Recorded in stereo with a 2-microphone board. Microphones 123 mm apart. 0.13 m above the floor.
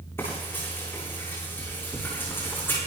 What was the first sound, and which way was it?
Frying, 20° left (ahead or behind).